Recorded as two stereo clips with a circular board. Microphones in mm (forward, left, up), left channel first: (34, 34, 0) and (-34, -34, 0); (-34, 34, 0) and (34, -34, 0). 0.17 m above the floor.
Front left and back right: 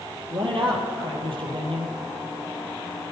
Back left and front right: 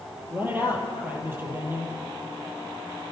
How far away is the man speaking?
About 5.5 m.